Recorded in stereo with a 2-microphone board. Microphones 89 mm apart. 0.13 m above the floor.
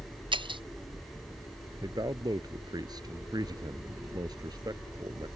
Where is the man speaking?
50° right (ahead or behind).